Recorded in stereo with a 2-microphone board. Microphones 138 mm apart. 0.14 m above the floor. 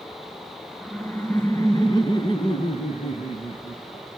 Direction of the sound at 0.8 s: Centre (ahead or behind).